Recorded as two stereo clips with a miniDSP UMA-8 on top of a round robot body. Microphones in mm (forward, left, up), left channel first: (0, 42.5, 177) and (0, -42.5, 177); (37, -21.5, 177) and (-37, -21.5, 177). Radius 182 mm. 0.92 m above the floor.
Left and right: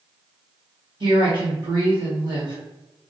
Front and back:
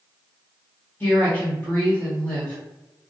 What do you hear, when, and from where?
1.0 s a woman speaking: 65° right, 1.4 m